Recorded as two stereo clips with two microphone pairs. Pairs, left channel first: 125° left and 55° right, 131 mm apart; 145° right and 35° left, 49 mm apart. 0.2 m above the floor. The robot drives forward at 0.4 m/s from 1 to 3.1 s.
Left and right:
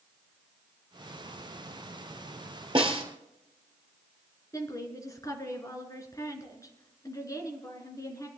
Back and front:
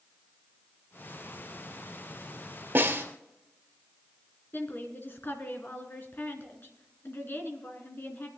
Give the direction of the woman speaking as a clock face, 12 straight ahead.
6 o'clock.